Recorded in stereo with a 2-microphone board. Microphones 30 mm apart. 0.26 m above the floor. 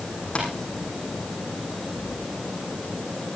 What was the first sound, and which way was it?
Tapping, 35° left (ahead or behind).